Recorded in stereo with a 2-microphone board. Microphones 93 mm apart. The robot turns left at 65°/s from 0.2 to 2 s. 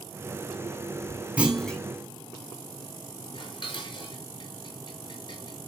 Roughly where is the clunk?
Centre.